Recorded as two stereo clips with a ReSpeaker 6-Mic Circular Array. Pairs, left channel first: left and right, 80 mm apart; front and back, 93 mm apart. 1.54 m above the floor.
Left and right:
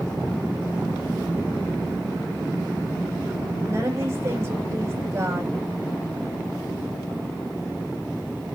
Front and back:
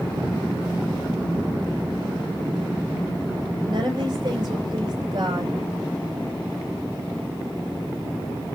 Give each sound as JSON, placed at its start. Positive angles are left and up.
{"t": 3.7, "sound": "a woman speaking", "azimuth_deg": -145, "distance_m": 5.5}